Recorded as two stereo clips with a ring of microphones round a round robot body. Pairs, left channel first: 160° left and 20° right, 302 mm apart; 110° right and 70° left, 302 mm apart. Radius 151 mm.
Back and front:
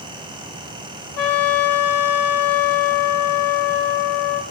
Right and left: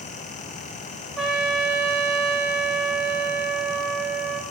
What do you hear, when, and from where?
1.2 s a trumpet: 155° left, 1.0 m